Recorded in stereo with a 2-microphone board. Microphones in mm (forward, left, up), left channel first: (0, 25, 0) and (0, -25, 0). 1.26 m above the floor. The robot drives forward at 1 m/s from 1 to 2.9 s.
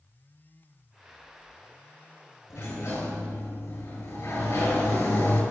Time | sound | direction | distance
2.5 | a sliding door | 60° left (ahead or behind) | 7 m